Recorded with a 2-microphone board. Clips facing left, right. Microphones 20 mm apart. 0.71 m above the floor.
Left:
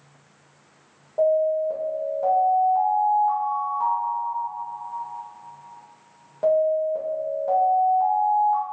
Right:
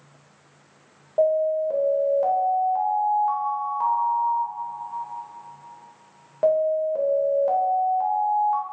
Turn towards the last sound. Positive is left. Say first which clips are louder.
# even
turn(degrees=-20)  # may be behind; listen again after turning